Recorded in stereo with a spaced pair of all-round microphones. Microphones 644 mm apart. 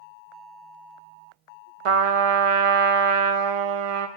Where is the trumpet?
60° right (ahead or behind), 0.6 m.